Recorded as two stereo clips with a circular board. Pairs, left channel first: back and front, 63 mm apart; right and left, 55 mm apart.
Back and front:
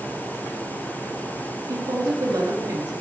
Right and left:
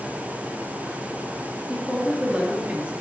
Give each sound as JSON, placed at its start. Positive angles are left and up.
{"t": 1.7, "sound": "a woman speaking", "azimuth_deg": 20, "distance_m": 3.0}